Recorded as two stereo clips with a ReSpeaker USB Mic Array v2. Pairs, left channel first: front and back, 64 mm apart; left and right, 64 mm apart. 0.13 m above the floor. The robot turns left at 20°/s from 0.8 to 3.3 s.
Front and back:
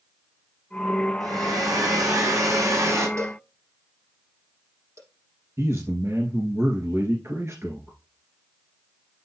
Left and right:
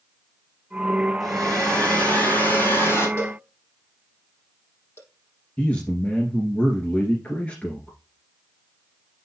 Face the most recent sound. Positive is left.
turn(degrees=155)